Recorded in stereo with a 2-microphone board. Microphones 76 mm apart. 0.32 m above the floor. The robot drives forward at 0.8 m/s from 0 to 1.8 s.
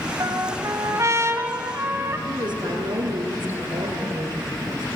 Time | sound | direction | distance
0.2 | a trumpet | 50° right (ahead or behind) | 1.3 m
2.3 | a woman speaking | 75° right (ahead or behind) | 5 m